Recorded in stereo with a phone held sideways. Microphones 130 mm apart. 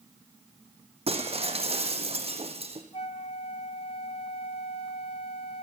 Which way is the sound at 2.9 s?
50° left (ahead or behind).